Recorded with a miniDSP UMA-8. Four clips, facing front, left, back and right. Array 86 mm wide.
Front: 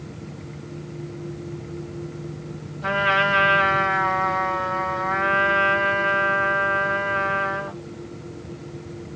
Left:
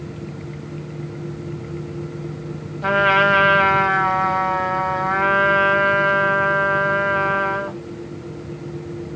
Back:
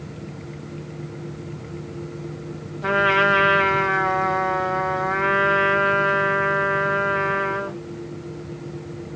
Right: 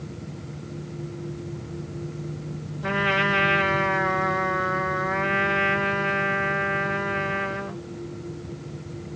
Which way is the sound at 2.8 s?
95° left.